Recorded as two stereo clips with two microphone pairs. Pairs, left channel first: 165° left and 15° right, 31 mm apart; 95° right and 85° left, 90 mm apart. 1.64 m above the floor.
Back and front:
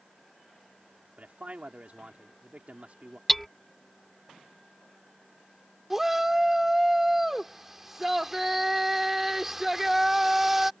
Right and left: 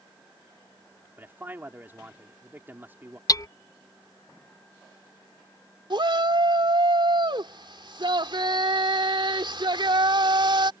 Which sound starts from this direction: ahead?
A man speaking, at 1.2 s.